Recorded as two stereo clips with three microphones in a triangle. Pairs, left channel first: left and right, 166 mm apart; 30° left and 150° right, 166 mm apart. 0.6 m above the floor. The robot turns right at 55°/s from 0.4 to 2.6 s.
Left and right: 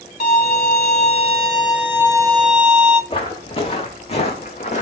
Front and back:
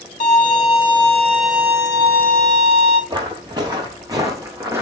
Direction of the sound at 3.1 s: 145° left.